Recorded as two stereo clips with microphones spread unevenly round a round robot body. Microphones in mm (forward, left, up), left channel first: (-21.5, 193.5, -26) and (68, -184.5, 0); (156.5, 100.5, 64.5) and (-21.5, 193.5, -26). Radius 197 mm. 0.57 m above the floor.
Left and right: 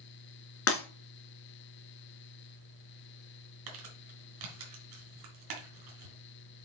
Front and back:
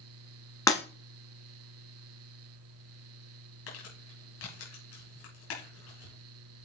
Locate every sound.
0.7 s breaking glass: 45° left, 2 m
3.7 s crumpling: 45° right, 3 m